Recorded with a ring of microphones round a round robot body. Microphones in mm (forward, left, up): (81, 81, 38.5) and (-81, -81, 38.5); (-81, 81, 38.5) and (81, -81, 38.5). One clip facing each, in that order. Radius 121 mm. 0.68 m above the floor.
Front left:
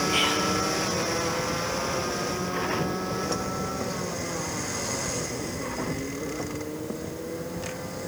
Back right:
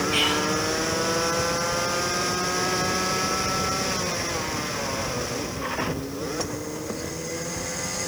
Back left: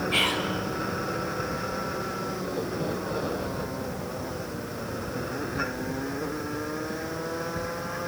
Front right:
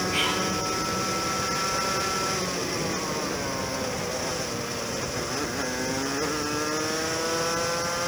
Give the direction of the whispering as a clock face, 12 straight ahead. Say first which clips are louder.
Back right 2 dB, even; 7 o'clock.